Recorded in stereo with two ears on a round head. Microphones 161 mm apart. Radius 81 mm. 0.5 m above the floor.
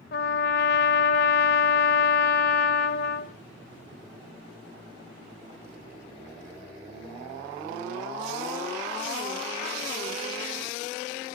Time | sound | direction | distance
0.1 | a trumpet | 55° left (ahead or behind) | 1.7 m